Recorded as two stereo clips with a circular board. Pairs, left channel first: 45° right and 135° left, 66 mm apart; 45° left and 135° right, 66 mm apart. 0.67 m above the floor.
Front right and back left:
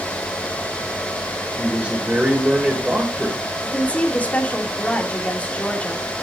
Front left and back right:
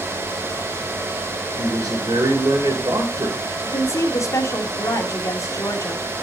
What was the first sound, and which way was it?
A man speaking, 155° right.